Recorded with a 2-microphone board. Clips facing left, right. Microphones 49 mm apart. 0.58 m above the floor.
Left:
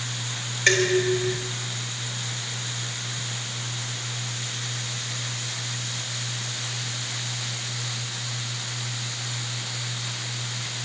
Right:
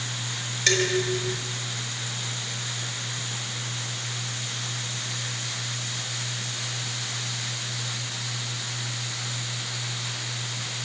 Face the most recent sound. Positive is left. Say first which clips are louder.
# left 4 dB
turn(degrees=25)  # may be behind; listen again after turning